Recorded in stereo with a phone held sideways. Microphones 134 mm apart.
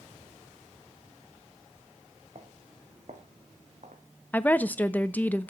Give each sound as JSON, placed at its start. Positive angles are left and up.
{"t": 2.4, "sound": "footsteps", "side_deg": -55, "distance_m": 2.5}
{"t": 4.3, "sound": "a woman speaking", "side_deg": 10, "distance_m": 0.7}